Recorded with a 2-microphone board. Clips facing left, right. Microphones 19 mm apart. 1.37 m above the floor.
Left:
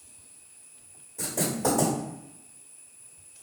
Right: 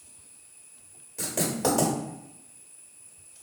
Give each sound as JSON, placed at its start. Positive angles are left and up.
{"t": 1.2, "sound": "writing", "side_deg": -40, "distance_m": 1.3}